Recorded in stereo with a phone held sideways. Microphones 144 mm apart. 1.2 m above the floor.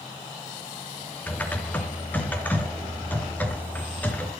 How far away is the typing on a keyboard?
About 3 m.